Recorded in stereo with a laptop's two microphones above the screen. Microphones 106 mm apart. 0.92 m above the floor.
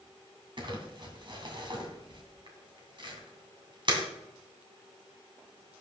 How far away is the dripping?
No dripping in this recording.